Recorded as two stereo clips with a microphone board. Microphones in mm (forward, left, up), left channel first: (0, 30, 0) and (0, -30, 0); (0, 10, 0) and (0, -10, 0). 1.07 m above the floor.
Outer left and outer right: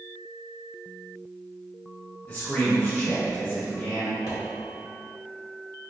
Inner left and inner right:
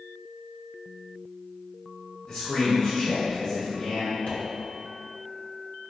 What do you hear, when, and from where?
2.3 s a man speaking: 15° left (ahead or behind), 1.2 m
4.3 s a pop: 65° left (ahead or behind), 1.5 m